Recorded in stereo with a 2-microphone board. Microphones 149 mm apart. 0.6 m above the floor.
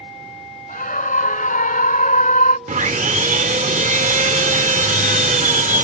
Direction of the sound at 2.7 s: 55° right (ahead or behind).